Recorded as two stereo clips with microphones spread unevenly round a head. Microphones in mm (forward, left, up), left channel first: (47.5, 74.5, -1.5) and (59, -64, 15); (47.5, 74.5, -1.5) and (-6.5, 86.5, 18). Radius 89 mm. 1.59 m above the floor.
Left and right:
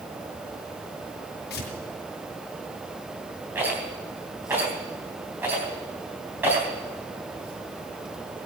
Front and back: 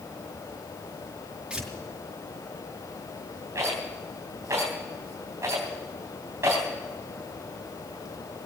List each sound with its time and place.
1.5 s tearing paper: 100° left, 5 m
3.5 s a rattle: 160° right, 3.5 m